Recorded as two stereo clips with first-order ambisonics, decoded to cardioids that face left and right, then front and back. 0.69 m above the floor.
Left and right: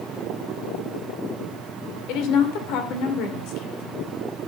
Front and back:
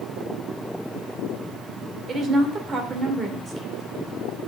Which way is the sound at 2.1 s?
115° left.